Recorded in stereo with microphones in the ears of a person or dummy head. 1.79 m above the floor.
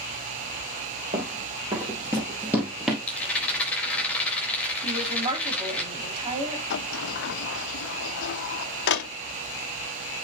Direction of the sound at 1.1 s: 25° right (ahead or behind).